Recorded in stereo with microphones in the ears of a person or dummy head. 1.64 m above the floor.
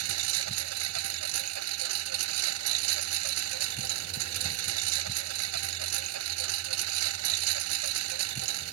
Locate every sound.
0.0 s a lawn mower: 80° right